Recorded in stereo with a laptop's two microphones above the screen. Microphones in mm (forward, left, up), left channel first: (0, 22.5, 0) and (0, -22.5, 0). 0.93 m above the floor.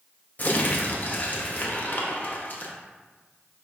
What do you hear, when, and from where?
0.4 s crumpling: 40° left (ahead or behind), 0.6 m